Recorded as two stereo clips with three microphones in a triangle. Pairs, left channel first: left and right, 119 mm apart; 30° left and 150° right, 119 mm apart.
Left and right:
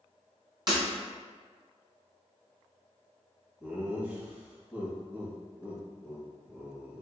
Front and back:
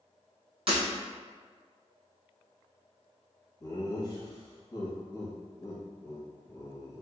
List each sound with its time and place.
0.7 s breaking glass: 130° right, 1.4 m
3.6 s laughter: 15° right, 1.2 m